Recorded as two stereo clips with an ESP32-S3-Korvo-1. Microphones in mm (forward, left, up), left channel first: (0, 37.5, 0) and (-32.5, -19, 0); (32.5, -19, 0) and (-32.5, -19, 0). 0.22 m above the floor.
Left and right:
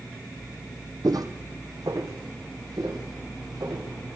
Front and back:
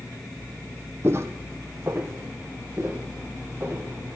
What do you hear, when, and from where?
1.0 s footsteps: 130° right, 0.6 m; by 3.9 s 125° right, 2.5 m